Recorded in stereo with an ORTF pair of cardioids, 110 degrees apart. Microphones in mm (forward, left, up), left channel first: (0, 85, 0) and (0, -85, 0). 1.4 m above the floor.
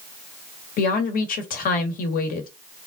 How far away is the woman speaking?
About 1.4 m.